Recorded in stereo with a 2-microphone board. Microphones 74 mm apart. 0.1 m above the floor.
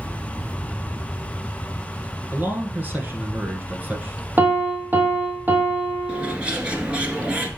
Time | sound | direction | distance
2.3 | a man speaking | 25° right (ahead or behind) | 1.4 m
4.4 | a piano | 25° right (ahead or behind) | 1.3 m
6.1 | a bird | 15° right (ahead or behind) | 1.5 m